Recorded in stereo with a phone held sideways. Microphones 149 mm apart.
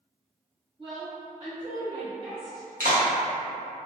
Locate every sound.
0.8 s a woman speaking: 35° right (ahead or behind), 1.0 m; by 2.7 s 70° right (ahead or behind), 2.5 m
2.8 s a clap: 75° right (ahead or behind), 1.1 m